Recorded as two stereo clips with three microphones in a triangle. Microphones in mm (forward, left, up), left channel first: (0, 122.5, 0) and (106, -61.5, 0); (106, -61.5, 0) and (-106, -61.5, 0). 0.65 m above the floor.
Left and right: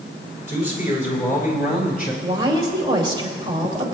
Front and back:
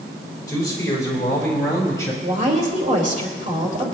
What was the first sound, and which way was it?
A man speaking, 70° left.